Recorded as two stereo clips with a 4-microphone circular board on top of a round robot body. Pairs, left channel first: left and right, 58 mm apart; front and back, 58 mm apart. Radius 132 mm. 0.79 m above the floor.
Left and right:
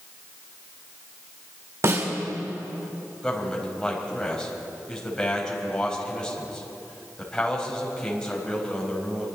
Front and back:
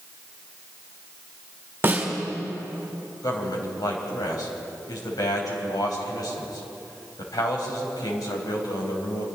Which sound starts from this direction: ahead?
A man speaking, at 3.2 s.